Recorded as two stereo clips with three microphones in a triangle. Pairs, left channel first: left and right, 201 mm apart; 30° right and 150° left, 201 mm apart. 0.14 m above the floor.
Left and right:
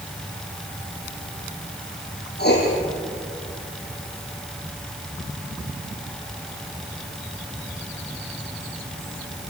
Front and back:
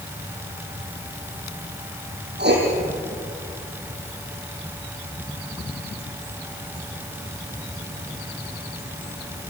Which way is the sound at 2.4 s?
120° left.